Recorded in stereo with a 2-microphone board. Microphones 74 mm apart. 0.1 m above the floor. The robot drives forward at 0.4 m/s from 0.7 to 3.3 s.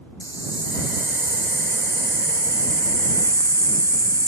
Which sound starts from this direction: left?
A hiss, at 0.2 s.